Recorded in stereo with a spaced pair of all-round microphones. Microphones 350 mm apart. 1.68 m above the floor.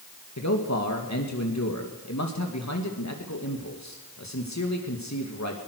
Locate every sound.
0.4 s a man speaking: 50° left (ahead or behind), 2.5 m